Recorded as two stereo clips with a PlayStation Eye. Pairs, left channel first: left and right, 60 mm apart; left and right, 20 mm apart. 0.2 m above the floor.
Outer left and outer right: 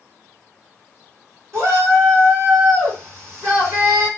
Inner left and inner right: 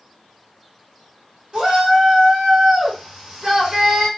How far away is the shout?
About 2 m.